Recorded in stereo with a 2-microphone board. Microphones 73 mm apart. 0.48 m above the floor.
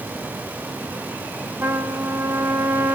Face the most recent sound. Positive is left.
turn(degrees=-35)  # may be behind; listen again after turning